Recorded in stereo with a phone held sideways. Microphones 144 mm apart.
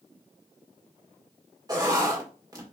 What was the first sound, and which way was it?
Writing, 25° right (ahead or behind).